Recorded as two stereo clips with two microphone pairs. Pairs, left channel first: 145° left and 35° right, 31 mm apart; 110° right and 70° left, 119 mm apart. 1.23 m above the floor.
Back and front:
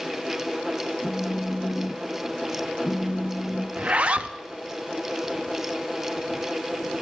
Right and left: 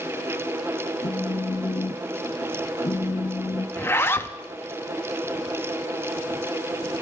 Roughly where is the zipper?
Ahead right.